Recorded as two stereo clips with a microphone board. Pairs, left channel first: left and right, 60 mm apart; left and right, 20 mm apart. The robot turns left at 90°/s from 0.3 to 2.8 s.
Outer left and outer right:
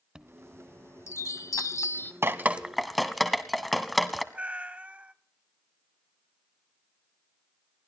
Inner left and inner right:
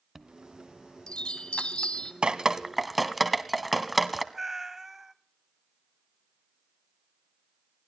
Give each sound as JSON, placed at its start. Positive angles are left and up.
{"t": 0.1, "sound": "a chime", "azimuth_deg": -165, "distance_m": 0.7}
{"t": 2.2, "sound": "dripping", "side_deg": -45, "distance_m": 0.8}
{"t": 4.3, "sound": "a cat meowing", "side_deg": -25, "distance_m": 0.8}